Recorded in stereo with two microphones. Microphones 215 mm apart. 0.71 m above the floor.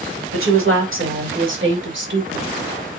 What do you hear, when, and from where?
0.3 s a woman speaking: 75° right (ahead or behind), 3.5 m; by 2.5 s 55° right (ahead or behind), 3 m